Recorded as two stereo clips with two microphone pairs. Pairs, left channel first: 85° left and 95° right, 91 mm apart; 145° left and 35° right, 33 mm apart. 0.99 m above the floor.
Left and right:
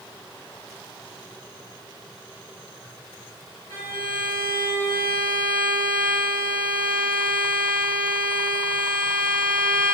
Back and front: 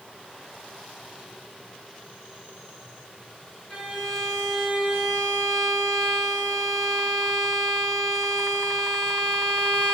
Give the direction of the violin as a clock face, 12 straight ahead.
9 o'clock.